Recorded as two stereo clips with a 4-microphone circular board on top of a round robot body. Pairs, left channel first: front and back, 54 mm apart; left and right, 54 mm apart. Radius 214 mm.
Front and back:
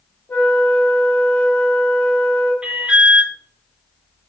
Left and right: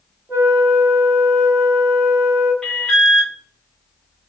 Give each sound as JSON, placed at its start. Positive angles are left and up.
{"t": 0.3, "sound": "a flute", "azimuth_deg": -45, "distance_m": 1.5}
{"t": 2.6, "sound": "an alarm", "azimuth_deg": 150, "distance_m": 1.3}